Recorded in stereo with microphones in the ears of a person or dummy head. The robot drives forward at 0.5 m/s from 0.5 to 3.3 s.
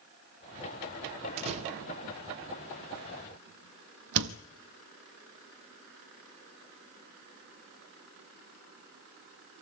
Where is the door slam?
35° right (ahead or behind), 1.3 m; by 4.4 s 65° right (ahead or behind), 0.8 m.